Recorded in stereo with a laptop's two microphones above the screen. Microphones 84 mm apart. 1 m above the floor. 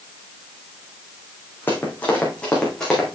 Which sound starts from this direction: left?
Running footsteps, at 1.7 s.